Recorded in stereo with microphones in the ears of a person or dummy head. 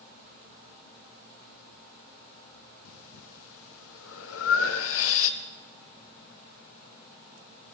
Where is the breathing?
80° left, 1.1 m.